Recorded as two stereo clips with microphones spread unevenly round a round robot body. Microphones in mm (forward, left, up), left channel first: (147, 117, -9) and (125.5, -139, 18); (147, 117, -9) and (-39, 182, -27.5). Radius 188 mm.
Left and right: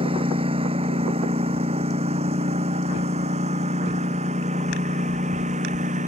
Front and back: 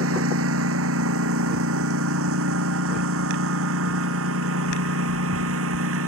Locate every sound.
0.0 s a lawn mower: 170° right